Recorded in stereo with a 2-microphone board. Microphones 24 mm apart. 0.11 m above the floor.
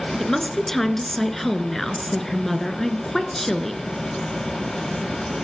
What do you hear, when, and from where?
0.2 s a woman speaking: 15° left (ahead or behind), 1.4 m